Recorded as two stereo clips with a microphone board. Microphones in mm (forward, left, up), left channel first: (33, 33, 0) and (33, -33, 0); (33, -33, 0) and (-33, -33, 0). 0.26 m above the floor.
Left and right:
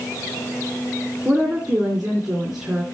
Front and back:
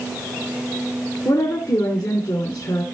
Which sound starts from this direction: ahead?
A woman speaking, at 1.2 s.